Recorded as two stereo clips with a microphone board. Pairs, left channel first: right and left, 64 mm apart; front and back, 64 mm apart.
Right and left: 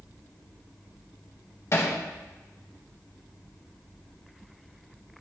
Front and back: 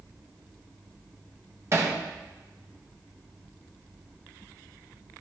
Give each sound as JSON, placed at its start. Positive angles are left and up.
{"t": 1.7, "sound": "hammering", "azimuth_deg": -135, "distance_m": 1.8}